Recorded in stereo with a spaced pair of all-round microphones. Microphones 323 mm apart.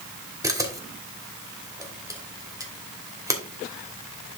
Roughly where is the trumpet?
I don't hear a trumpet.